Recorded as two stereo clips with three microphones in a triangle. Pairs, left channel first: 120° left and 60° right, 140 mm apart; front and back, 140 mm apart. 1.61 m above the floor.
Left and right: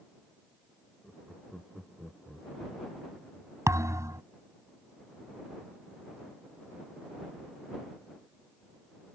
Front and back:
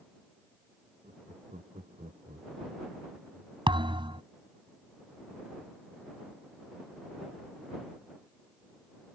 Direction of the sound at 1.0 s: 155° right.